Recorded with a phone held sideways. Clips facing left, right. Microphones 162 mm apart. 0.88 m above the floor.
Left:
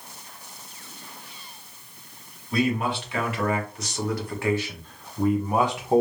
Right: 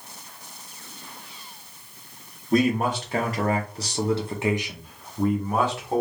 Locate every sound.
2.5 s a man speaking: 45° right (ahead or behind), 1.5 m; by 6.0 s 25° left (ahead or behind), 0.9 m